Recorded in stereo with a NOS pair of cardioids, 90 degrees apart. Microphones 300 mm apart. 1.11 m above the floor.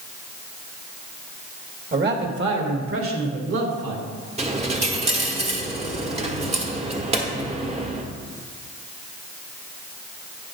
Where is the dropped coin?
20° right, 1.4 m.